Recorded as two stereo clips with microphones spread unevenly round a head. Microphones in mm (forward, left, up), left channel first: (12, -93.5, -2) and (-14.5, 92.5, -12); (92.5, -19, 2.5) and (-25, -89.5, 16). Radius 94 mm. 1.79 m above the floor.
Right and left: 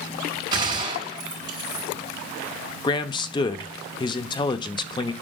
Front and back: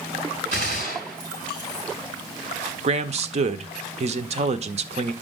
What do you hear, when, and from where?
0.5 s a gunshot: 165° left, 5 m
2.8 s a man speaking: 140° right, 0.7 m